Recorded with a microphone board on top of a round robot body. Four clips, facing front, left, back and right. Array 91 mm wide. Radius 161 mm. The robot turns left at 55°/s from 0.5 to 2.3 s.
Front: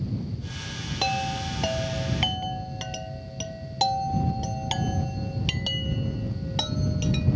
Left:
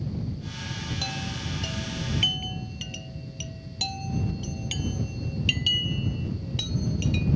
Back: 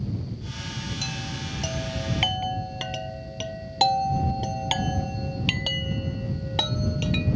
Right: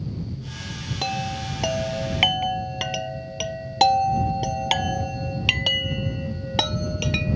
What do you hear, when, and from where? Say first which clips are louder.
1.0 s a chime: right 7 dB, front 8 dB; 30° right; by 7.4 s 100° right